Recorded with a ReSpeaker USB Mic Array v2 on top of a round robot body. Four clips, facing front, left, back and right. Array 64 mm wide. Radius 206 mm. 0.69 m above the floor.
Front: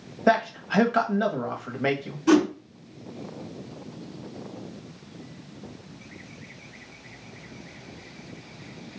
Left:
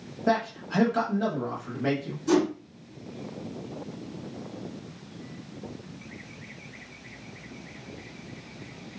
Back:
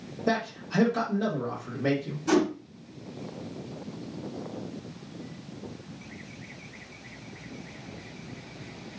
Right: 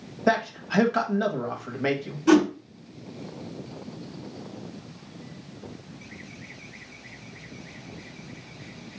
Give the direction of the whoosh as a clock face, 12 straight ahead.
2 o'clock.